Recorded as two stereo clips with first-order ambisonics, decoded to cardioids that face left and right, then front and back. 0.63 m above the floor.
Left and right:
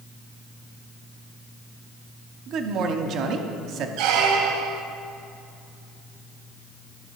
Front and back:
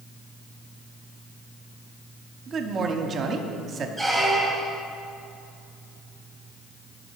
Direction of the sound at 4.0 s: 80° right.